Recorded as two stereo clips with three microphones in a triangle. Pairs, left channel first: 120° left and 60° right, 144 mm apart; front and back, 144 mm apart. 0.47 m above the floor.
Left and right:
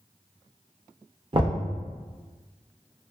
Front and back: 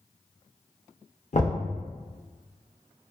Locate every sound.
1.3 s knocking: 10° right, 0.6 m